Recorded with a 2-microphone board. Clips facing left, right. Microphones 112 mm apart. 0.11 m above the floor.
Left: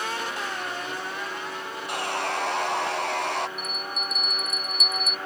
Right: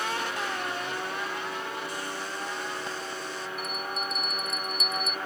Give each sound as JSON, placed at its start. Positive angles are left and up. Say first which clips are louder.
{"t": 1.9, "sound": "sawing", "louder": "left 7 dB", "side_deg": 70}
{"t": 3.6, "sound": "a bell", "louder": "even", "side_deg": -30}